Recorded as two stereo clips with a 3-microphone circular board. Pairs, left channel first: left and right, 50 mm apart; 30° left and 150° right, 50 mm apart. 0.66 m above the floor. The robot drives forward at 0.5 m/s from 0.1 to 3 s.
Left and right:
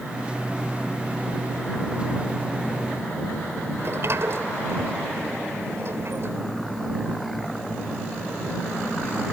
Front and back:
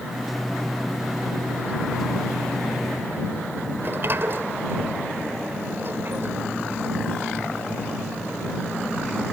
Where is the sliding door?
115° right.